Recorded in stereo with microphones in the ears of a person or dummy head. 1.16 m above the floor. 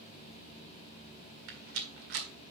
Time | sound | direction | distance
1.5 | a rattle | 70° right (ahead or behind) | 1.9 m